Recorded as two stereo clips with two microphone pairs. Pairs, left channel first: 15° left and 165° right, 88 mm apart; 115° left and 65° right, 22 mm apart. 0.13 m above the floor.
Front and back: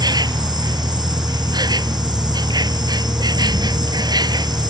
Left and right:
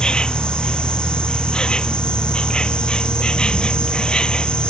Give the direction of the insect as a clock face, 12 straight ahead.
7 o'clock.